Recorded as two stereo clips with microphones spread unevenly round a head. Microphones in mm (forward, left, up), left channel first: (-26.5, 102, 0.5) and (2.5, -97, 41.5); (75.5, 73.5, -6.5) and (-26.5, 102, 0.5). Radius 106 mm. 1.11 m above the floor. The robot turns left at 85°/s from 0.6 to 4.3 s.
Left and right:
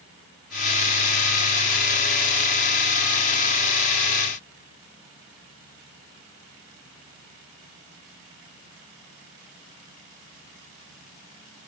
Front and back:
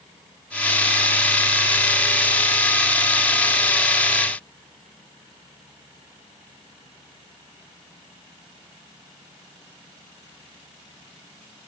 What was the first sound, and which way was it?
Only background noise.